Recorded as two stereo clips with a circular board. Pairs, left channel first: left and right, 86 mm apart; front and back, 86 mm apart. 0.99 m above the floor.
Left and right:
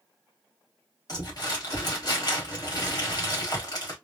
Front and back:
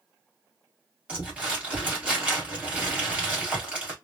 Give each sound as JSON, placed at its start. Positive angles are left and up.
{"t": 1.1, "sound": "crumpling", "azimuth_deg": 105, "distance_m": 1.3}